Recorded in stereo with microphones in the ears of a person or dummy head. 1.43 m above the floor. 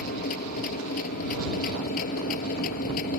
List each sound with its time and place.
0.0 s a machine running: 35° left (ahead or behind)